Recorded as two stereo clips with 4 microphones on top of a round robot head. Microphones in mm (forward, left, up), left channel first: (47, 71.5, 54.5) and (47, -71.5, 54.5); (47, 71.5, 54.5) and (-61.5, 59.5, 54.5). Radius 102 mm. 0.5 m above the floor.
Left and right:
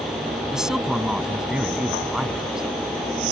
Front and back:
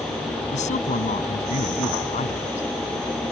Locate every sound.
0.5 s a man speaking: 5° right